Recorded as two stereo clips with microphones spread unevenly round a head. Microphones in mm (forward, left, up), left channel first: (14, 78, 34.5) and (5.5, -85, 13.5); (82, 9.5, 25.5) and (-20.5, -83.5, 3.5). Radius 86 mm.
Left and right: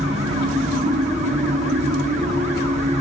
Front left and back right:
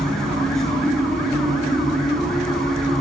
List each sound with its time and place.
0.0 s a machine running: 40° right, 3.5 m